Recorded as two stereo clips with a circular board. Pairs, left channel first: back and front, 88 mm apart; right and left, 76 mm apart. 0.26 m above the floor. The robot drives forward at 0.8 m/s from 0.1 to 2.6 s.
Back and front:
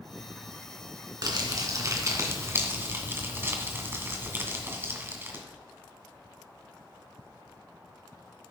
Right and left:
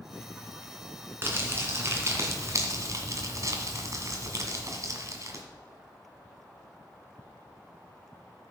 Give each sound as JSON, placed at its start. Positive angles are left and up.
{"t": 1.2, "sound": "crumpling", "azimuth_deg": 35, "distance_m": 2.5}